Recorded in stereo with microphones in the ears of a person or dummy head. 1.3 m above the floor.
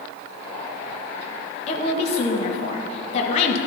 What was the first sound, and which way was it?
A woman speaking, 50° left (ahead or behind).